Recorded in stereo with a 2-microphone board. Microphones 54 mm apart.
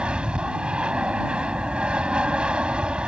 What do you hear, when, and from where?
0.0 s an aircraft: 20° right (ahead or behind)